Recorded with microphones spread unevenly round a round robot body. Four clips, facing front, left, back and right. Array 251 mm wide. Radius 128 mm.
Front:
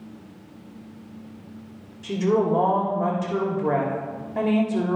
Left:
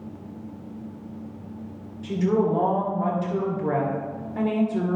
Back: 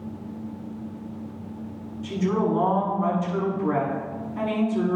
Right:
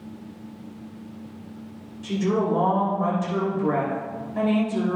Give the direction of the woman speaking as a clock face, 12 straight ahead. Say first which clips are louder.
Left 1 dB, front 3 dB; 12 o'clock.